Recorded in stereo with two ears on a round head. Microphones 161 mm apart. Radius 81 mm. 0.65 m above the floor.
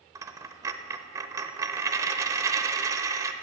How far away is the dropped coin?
About 0.6 m.